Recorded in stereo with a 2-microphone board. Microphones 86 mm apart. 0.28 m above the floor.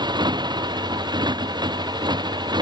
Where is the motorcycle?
60° right (ahead or behind).